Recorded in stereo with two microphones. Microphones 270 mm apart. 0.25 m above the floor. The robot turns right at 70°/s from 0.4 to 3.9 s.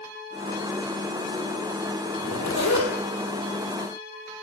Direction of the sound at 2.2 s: 55° left.